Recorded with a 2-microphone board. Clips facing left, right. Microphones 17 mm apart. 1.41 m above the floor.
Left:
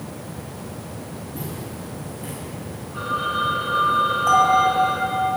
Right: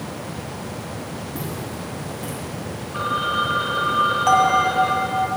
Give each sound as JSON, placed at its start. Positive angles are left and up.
{"t": 1.4, "sound": "footsteps", "side_deg": -70, "distance_m": 4.0}
{"t": 2.9, "sound": "a phone ringing", "side_deg": -65, "distance_m": 1.5}
{"t": 4.3, "sound": "a bell", "side_deg": -45, "distance_m": 2.5}